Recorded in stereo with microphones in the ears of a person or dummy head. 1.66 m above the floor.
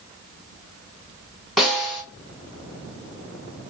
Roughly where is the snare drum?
Centre.